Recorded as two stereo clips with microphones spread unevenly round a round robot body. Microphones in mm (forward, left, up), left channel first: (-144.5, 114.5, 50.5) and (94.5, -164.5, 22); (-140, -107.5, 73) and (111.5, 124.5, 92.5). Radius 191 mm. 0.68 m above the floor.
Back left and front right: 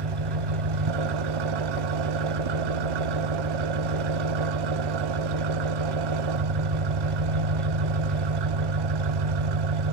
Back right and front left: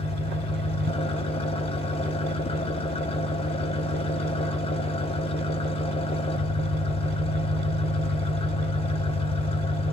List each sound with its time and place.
0.0 s an engine running: 65° right, 1.1 m